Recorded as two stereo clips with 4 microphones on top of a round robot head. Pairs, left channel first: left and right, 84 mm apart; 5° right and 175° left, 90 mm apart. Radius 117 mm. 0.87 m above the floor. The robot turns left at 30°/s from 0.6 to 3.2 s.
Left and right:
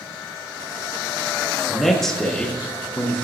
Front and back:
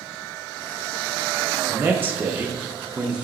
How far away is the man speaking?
About 0.9 m.